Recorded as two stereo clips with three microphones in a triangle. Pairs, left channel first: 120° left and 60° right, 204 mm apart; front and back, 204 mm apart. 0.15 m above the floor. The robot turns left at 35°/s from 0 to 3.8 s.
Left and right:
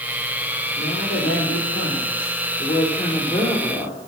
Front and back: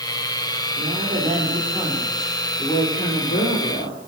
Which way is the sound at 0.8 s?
140° left.